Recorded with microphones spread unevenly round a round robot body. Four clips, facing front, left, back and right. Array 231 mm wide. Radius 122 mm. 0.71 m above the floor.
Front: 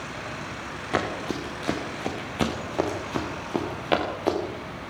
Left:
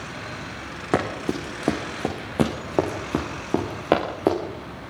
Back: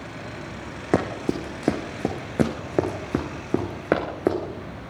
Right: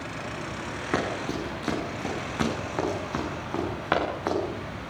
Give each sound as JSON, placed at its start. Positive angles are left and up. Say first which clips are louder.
{"t": 0.9, "sound": "running footsteps", "louder": "left 5 dB, back 4 dB", "azimuth_deg": 155, "distance_m": 3.5}